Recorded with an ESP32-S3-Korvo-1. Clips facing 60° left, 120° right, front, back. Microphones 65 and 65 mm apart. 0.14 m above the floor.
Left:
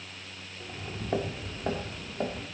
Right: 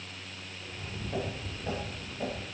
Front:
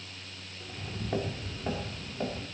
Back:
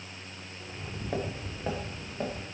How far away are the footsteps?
About 1.9 m.